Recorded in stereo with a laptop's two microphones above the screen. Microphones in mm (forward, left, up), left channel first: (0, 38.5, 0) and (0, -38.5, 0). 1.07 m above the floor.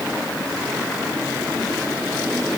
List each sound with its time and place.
Only background noise.